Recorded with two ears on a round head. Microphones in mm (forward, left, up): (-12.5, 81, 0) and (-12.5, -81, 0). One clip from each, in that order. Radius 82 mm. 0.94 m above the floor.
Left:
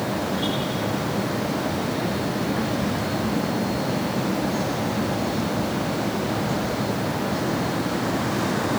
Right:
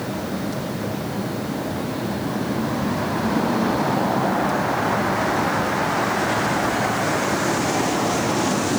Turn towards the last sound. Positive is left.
No sound to turn to.